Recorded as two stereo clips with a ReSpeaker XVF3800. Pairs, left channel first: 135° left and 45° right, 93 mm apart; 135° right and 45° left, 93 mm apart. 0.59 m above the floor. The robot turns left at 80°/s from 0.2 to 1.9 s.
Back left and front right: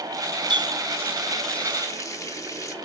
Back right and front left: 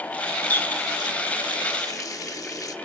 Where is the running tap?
65° right, 0.8 m; by 2.8 s 175° right, 0.8 m.